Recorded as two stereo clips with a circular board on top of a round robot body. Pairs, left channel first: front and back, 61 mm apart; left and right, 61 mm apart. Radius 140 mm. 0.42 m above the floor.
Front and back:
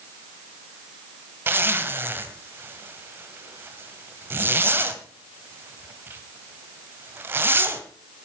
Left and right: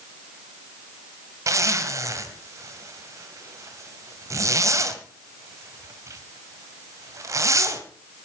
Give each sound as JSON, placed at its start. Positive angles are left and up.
{"t": 1.5, "sound": "a zipper", "azimuth_deg": -125, "distance_m": 2.0}